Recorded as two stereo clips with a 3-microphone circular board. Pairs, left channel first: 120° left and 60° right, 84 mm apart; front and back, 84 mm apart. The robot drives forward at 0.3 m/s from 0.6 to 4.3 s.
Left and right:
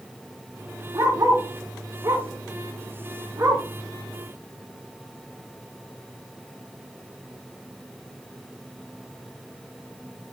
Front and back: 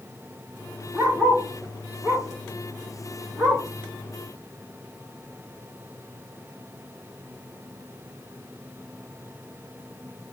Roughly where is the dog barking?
Right.